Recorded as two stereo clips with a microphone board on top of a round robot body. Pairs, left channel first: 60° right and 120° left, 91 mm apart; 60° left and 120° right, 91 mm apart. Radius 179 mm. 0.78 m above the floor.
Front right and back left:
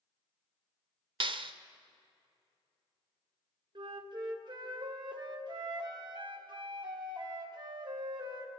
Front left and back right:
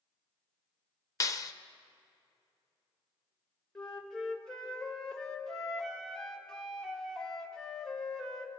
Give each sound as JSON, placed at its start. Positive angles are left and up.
{"t": 1.2, "sound": "a clap", "azimuth_deg": 110, "distance_m": 0.8}
{"t": 3.8, "sound": "a flute", "azimuth_deg": 145, "distance_m": 1.5}